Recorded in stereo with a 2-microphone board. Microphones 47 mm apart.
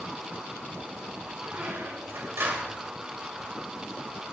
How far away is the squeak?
About 2.5 m.